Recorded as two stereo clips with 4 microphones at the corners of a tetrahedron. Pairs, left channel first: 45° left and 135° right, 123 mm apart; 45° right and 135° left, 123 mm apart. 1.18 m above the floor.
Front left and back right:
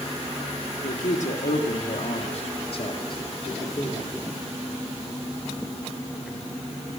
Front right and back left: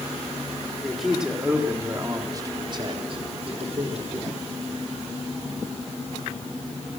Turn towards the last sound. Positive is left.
turn(degrees=110)